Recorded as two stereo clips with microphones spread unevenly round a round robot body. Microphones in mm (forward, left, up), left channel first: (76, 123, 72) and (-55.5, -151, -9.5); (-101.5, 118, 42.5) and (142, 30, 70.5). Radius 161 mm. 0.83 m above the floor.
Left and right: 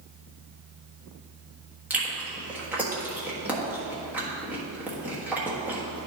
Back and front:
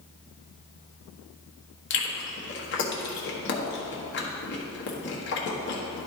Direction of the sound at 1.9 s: 175° left.